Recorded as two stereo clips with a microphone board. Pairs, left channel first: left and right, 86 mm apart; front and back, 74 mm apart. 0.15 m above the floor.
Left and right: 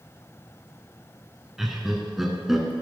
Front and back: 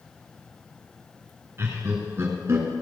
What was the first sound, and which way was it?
Laughter, 175° right.